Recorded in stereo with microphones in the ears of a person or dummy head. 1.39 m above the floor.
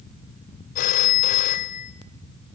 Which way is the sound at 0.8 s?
45° left (ahead or behind).